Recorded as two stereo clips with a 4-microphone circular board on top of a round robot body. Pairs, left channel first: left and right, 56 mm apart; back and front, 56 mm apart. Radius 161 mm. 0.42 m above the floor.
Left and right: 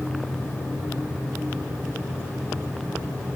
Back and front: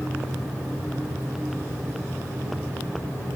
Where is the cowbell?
No cowbell in this recording.